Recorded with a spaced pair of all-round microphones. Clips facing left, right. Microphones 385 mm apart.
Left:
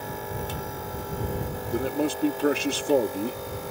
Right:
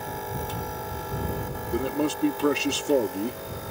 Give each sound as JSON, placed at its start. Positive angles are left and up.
{"t": 1.7, "sound": "a man speaking", "side_deg": -5}